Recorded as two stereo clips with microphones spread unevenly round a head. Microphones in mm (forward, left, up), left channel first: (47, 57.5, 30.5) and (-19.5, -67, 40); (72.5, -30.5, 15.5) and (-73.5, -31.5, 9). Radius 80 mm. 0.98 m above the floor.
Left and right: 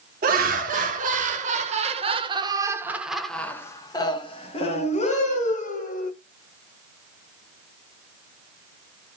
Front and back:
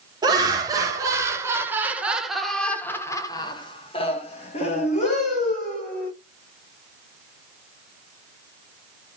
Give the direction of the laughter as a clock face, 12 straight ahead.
4 o'clock.